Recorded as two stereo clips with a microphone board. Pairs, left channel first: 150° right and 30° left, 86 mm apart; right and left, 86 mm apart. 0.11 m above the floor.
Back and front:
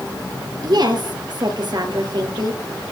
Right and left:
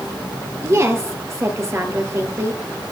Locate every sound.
0.6 s a woman speaking: 40° left, 2 m